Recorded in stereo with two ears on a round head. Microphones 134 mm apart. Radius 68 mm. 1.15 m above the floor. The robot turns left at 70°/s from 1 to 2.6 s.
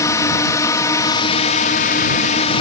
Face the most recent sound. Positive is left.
turn(degrees=40)